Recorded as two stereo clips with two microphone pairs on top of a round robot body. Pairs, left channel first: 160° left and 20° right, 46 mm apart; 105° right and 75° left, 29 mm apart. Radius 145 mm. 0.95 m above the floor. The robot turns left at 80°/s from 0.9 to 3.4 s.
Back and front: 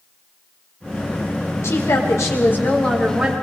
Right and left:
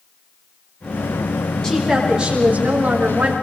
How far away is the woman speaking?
About 4.5 m.